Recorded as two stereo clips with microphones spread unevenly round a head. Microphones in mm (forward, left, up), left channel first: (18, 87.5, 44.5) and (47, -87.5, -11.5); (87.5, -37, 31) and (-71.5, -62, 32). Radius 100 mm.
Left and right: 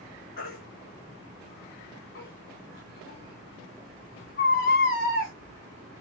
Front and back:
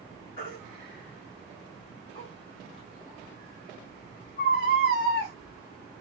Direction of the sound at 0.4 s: 75° left.